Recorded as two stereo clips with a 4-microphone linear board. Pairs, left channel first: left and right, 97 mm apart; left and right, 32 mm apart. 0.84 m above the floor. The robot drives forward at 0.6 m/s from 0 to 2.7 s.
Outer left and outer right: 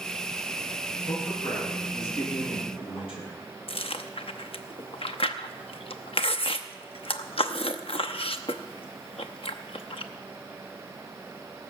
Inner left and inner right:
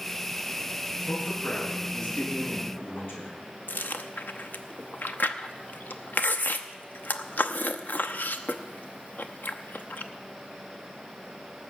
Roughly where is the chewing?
Left.